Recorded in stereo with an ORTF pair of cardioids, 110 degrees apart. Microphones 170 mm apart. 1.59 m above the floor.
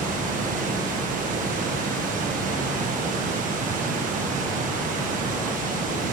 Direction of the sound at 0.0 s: 50° right.